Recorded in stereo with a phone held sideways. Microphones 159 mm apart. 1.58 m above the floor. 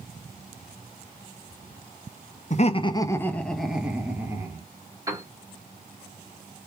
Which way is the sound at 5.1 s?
20° right (ahead or behind).